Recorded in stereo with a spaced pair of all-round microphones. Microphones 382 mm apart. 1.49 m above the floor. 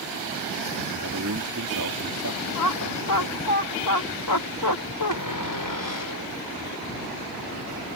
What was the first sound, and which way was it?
A man speaking, 55° right (ahead or behind).